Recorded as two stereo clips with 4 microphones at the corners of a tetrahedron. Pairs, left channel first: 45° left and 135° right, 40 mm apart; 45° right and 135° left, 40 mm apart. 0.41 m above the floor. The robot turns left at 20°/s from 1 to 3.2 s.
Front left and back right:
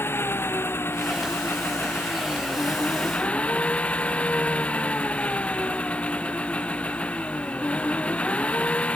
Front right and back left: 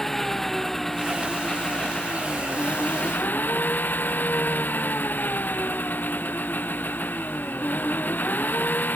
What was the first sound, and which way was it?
An engine running, 35° left.